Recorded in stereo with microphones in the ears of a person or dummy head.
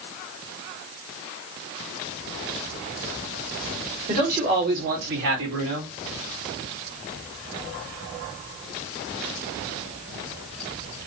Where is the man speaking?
45° right (ahead or behind), 2.5 m; by 5.9 s 70° right (ahead or behind), 1.9 m.